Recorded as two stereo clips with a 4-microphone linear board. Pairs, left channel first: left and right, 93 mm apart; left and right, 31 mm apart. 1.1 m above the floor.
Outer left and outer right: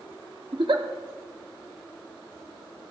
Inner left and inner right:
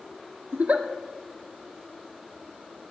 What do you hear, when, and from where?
0.5 s a giggle: 60° right (ahead or behind), 1.2 m